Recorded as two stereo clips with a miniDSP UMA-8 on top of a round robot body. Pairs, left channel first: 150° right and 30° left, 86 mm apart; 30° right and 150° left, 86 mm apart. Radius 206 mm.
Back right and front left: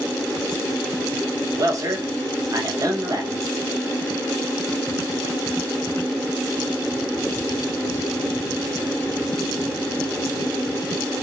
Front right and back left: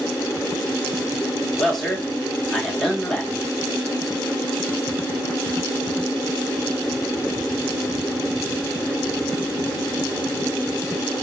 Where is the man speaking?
55° left, 1.5 m.